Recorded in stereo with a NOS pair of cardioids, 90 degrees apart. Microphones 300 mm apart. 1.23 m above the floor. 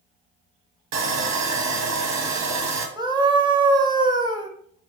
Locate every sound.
0.9 s sawing: 65° right, 1.0 m
3.0 s a scream: 15° right, 0.9 m